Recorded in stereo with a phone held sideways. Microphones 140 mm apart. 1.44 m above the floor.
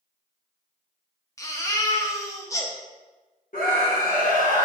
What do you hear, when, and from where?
1.4 s a baby crying: 25° left (ahead or behind), 0.9 m
3.5 s a scream: 85° left, 1.9 m